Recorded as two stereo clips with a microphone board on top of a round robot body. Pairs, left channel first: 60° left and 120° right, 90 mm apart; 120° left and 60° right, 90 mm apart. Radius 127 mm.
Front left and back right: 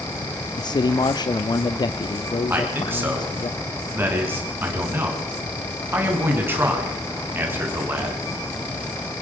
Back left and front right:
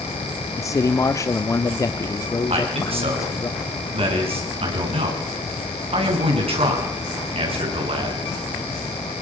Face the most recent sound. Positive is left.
turn(degrees=-55)